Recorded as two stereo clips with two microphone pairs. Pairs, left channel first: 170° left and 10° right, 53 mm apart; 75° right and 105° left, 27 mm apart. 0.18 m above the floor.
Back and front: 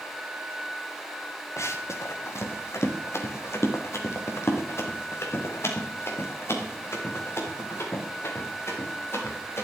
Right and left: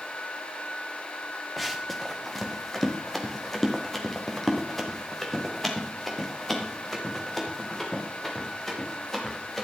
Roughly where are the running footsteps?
Behind.